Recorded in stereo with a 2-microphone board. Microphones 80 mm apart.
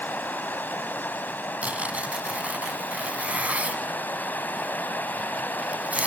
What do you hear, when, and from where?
0.0 s running water: 25° left (ahead or behind), 1.4 m
1.6 s tearing paper: 15° right (ahead or behind), 1.3 m